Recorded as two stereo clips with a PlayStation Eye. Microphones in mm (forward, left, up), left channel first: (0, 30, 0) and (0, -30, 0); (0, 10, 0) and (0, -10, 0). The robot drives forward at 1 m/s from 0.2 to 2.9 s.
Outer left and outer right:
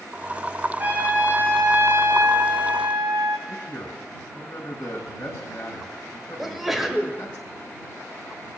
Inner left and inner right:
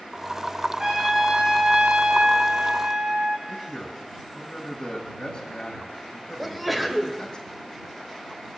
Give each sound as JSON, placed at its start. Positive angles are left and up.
{"t": 0.8, "sound": "a trumpet", "side_deg": -30, "distance_m": 2.0}
{"t": 3.5, "sound": "a man speaking", "side_deg": 25, "distance_m": 1.9}
{"t": 6.4, "sound": "a sneeze", "side_deg": -5, "distance_m": 1.5}